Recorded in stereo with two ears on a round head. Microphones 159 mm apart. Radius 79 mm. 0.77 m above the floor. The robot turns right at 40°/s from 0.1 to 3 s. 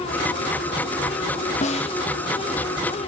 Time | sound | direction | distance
1.6 | a snare drum | 40° left (ahead or behind) | 0.9 m